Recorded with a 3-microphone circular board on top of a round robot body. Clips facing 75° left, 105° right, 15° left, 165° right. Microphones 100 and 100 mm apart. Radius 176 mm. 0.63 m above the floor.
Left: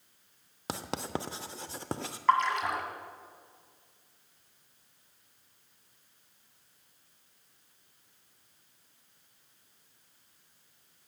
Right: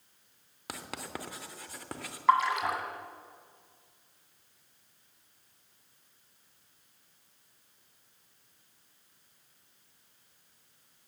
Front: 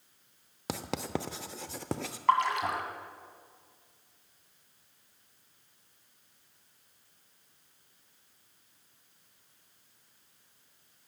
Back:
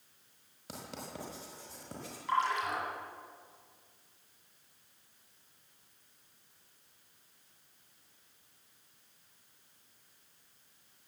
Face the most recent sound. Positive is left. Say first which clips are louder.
# right 1 dB, front 5 dB
turn(degrees=-20)